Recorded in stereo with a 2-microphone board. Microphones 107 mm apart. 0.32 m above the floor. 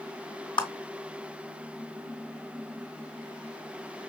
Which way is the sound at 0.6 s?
45° left (ahead or behind).